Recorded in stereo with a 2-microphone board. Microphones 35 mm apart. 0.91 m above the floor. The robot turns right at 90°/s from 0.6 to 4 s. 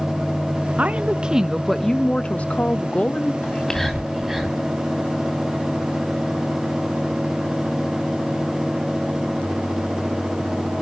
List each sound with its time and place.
0.8 s a woman speaking: 80° right, 1.1 m; by 3.3 s 150° left, 1.1 m
3.4 s whispering: 35° left (ahead or behind), 2 m; by 4.6 s 15° right (ahead or behind), 2 m